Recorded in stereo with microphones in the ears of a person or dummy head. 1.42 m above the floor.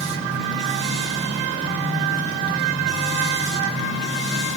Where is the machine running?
35° right (ahead or behind), 2.5 m.